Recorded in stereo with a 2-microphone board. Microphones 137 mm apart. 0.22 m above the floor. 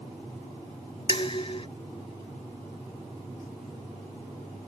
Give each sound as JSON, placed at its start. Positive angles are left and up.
{"t": 1.1, "sound": "dishes clattering", "side_deg": 40}